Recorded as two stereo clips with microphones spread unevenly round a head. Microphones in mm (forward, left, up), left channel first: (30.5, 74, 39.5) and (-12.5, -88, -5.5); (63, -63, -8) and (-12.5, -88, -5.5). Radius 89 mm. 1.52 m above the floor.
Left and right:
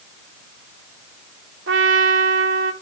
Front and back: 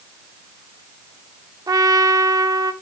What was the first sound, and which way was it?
A trumpet, 130° right.